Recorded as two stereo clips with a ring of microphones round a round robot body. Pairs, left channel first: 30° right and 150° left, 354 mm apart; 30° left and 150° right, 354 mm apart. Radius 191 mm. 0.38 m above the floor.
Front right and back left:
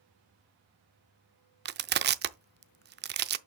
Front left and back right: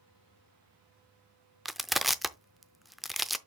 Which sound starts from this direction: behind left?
Crushing, at 1.6 s.